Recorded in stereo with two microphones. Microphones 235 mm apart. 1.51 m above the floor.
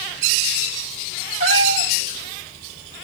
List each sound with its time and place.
1.4 s a cat meowing: 60° right (ahead or behind), 2.5 m